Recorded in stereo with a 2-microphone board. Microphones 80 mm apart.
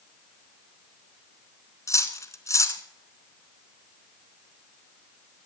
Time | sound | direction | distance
1.9 | cutlery clinking | 40° left (ahead or behind) | 1.1 m